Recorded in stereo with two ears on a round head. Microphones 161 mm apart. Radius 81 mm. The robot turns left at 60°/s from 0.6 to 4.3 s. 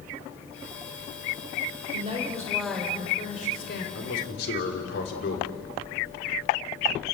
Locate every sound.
1.9 s a woman speaking: 135° right, 4.5 m; by 3.9 s 110° left, 4.5 m
4.0 s a man speaking: 80° left, 3.5 m; by 5.5 s 60° left (ahead or behind), 3.5 m